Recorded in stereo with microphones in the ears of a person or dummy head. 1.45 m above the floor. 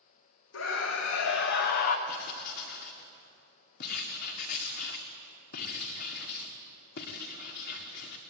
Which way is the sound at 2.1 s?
50° left (ahead or behind).